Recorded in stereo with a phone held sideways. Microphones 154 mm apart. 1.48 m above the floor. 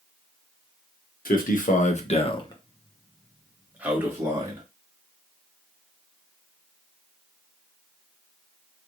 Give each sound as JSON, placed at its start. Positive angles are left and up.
{"t": 1.2, "sound": "a man speaking", "side_deg": 70, "distance_m": 1.3}